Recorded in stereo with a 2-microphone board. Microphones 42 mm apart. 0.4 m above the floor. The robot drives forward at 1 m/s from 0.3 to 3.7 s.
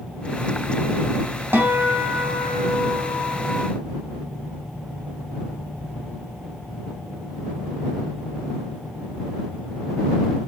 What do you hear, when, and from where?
1.5 s a guitar: 55° right (ahead or behind), 3 m